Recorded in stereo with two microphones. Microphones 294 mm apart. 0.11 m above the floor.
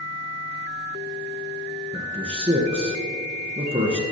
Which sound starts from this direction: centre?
A man speaking, at 1.9 s.